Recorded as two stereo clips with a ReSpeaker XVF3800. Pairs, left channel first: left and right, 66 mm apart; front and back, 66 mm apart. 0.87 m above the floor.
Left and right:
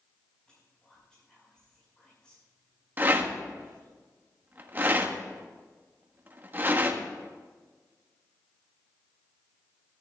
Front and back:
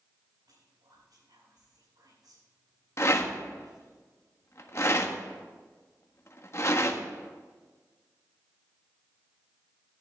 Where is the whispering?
165° left, 6 m.